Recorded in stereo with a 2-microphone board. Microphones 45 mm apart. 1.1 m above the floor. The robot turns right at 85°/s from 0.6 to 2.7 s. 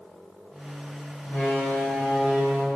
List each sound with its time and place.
1.2 s a door slam: 100° left, 5.5 m; by 2.8 s 135° right, 5.5 m